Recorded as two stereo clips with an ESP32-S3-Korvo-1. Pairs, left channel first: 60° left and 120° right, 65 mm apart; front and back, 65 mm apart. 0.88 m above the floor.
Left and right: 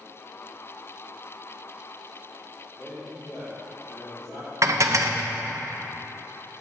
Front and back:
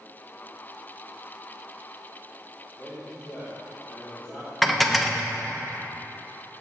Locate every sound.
2.8 s a man speaking: 65° left, 2 m
4.6 s dishes clattering: 90° right, 0.5 m